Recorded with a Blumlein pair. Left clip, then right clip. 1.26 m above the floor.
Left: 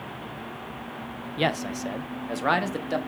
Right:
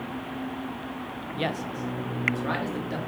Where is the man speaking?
15° left, 0.9 m; by 3.0 s 70° left, 2 m.